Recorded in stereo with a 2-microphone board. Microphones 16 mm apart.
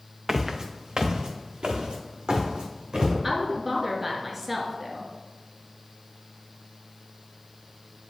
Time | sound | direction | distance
0.3 | footsteps | 30° right (ahead or behind) | 0.8 m
3.2 | a woman speaking | 20° right (ahead or behind) | 1.2 m